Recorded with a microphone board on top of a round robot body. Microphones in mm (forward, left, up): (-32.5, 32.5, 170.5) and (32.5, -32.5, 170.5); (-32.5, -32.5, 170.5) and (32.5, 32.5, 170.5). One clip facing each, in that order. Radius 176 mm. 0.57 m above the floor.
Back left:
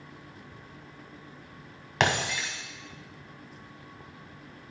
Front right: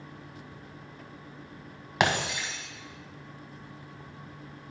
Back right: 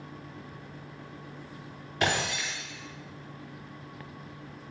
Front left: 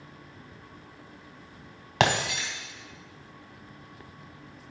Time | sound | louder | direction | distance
2.0 | breaking glass | even, front left 4 dB | 40° left | 2 m